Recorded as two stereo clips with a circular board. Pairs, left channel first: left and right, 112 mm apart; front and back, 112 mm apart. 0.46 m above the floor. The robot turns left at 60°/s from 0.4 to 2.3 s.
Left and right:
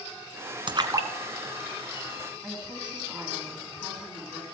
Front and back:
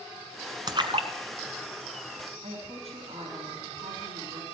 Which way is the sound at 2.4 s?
170° right.